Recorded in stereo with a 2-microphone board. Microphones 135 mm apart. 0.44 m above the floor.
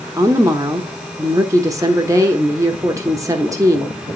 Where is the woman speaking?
25° right (ahead or behind), 1.0 m.